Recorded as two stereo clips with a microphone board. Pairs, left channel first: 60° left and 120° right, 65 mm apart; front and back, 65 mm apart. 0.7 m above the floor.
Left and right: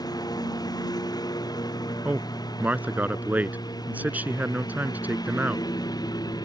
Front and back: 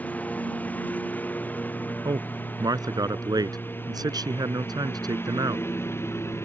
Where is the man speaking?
175° left.